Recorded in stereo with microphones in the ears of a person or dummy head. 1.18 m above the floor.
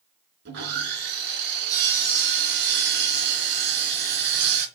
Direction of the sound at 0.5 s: 60° right (ahead or behind).